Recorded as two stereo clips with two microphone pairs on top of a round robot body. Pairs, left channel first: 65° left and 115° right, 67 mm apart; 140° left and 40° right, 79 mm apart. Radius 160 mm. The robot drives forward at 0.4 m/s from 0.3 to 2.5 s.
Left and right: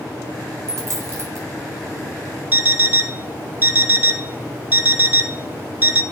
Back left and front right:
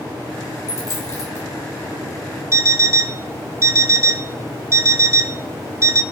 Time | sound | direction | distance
0.7 | a dropped coin | 160° right | 1.6 m
2.5 | an alarm clock | 85° right | 0.7 m